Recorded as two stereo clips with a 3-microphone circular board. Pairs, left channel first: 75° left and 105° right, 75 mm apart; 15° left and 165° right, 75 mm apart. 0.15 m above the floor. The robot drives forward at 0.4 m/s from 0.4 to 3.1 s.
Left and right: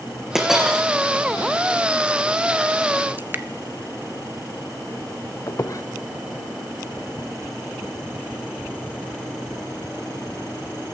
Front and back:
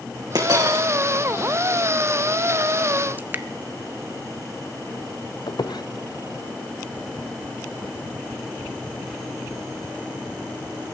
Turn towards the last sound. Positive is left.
turn(degrees=30)